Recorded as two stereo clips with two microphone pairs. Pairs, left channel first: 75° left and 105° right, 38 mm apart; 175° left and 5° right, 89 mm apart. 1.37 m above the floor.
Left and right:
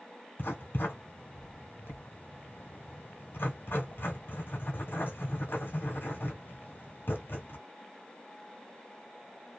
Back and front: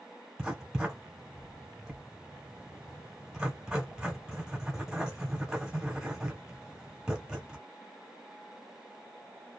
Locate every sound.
0.4 s writing: 75° left, 1.1 m